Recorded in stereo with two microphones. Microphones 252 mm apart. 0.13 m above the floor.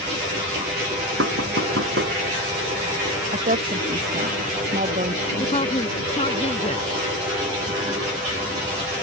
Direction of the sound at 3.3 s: 35° right (ahead or behind).